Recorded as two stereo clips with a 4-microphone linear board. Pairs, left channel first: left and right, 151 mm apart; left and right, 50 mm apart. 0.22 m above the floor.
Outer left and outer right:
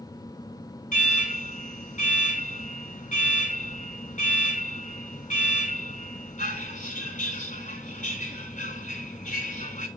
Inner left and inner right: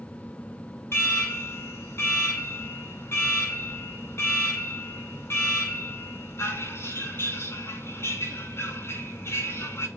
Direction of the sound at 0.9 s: 55° left (ahead or behind).